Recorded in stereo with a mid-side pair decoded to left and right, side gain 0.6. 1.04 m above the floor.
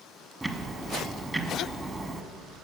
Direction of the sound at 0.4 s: 15° right.